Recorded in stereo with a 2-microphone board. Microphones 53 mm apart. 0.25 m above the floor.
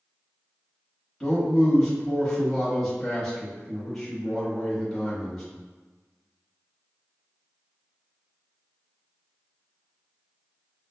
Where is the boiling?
I don't hear boiling.